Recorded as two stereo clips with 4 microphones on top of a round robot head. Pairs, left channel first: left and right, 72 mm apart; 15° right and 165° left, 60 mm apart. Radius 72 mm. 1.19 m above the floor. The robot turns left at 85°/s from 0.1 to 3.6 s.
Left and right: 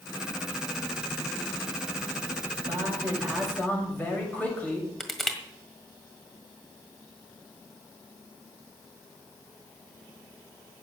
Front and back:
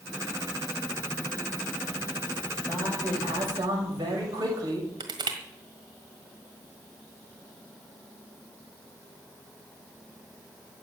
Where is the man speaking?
120° right, 7 m; by 4.9 s 160° left, 7 m.